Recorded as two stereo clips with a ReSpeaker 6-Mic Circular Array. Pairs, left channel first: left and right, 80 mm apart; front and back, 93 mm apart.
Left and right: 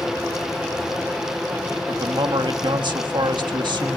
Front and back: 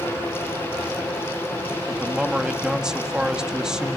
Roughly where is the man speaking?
Right.